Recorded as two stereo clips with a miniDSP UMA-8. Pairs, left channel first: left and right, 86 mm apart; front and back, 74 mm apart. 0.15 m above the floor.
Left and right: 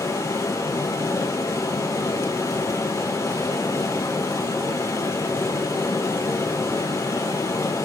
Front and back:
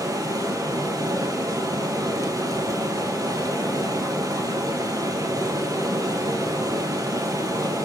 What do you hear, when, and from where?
0.0 s running water: 140° left, 1.4 m